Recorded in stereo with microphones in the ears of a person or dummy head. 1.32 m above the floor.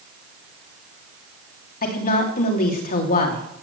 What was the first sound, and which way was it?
A woman speaking, 50° left (ahead or behind).